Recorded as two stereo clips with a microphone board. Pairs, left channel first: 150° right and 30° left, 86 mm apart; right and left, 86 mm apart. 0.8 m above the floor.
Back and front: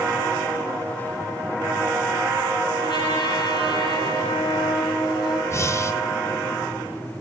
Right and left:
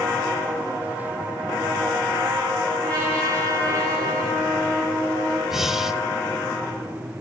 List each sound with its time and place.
2.8 s a trumpet: 165° right, 4.5 m
5.5 s breathing: 175° left, 0.7 m